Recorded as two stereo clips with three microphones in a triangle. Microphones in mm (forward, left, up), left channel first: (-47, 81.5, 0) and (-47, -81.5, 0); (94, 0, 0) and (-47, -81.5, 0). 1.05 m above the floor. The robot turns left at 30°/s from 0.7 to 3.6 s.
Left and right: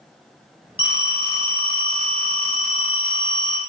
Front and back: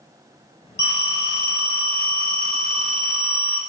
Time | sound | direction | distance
0.8 | a phone ringing | 35° left | 1.2 m